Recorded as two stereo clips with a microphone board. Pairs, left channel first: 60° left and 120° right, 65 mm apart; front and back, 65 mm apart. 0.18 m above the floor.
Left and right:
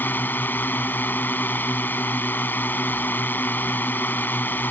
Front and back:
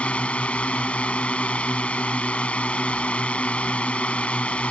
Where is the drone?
50° left.